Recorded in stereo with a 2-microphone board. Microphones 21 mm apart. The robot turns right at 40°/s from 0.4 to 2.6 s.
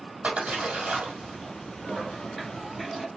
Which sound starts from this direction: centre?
A toilet flushing, at 1.9 s.